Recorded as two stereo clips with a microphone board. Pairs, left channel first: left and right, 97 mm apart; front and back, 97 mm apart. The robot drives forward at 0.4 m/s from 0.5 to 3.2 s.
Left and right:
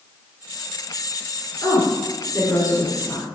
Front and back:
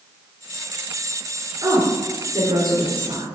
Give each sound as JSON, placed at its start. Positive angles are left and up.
{"t": 1.6, "sound": "a woman speaking", "azimuth_deg": 140, "distance_m": 3.5}